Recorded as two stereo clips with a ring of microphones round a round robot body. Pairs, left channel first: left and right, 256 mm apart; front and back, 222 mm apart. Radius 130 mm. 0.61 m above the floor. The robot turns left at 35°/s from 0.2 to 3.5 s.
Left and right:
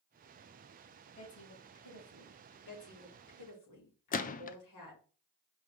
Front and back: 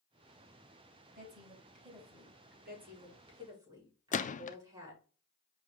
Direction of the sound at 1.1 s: 145° left.